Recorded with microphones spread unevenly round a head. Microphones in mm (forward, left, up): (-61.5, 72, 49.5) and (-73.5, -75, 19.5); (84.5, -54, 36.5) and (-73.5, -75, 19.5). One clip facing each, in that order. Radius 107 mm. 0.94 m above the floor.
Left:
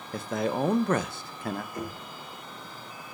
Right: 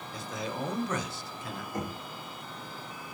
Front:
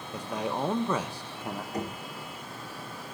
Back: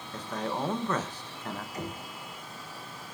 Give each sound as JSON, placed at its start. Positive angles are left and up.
{"t": 0.1, "sound": "a man speaking", "azimuth_deg": 90, "distance_m": 1.0}
{"t": 1.7, "sound": "knocking", "azimuth_deg": -35, "distance_m": 5.0}